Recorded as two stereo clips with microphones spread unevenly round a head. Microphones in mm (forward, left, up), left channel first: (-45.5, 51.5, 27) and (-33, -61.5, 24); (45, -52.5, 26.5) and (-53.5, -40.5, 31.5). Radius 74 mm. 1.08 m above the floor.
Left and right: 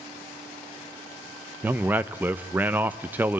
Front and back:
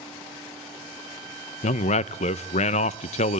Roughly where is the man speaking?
Ahead.